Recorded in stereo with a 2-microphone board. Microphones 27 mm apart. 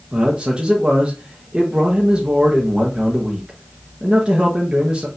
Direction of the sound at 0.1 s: 35° right (ahead or behind).